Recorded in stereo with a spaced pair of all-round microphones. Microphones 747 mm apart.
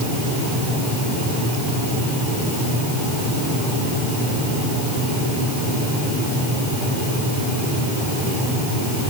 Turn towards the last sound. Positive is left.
No sound to turn to.